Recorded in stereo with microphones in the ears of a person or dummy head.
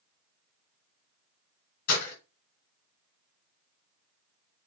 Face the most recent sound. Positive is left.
turn(degrees=55)  # may be behind; listen again after turning